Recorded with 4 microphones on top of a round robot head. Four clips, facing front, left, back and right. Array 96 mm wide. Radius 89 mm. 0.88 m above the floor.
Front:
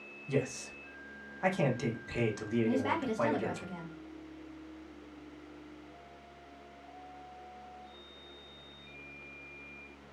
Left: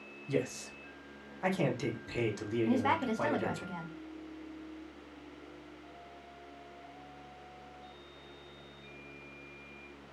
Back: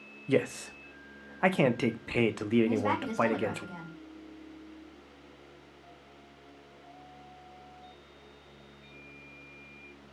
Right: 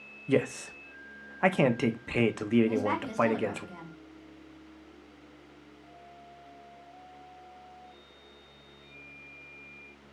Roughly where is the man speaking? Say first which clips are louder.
Right 7 dB, back 6 dB; behind right.